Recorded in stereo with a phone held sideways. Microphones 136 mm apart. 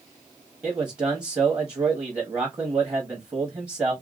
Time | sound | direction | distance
0.6 | a man speaking | 25° right (ahead or behind) | 0.9 m